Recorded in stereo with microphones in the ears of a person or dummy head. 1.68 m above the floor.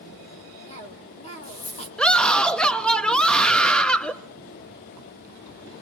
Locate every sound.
0.7 s a cough: 40° left (ahead or behind), 2.5 m
2.0 s a scream: 5° left (ahead or behind), 0.5 m